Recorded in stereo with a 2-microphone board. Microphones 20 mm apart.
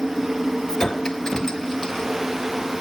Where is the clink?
30° left (ahead or behind), 1.0 m.